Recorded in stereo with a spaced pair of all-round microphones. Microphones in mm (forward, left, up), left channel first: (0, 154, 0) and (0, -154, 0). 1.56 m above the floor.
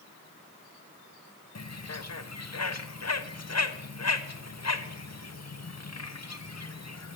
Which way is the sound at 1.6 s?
55° left (ahead or behind).